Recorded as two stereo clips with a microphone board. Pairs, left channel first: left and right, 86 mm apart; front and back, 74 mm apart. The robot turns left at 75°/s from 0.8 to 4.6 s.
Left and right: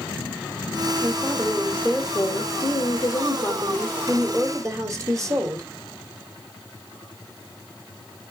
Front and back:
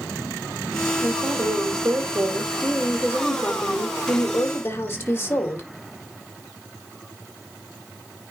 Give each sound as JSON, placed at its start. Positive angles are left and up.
{"t": 1.0, "sound": "a woman speaking", "azimuth_deg": -140, "distance_m": 1.7}